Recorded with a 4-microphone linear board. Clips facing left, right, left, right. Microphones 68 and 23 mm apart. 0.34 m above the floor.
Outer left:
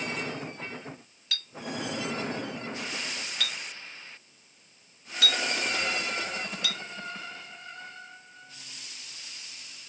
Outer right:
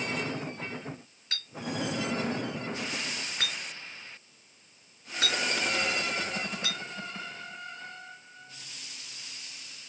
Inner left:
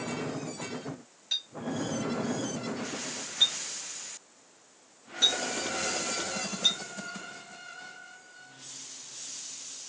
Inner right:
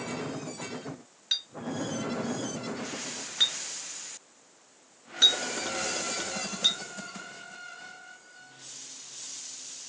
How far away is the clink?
About 2.5 m.